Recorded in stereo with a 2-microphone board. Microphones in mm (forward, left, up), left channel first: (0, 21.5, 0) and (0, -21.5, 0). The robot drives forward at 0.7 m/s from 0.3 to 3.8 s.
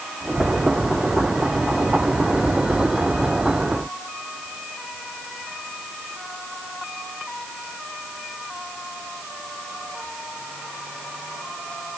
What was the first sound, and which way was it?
Only background noise.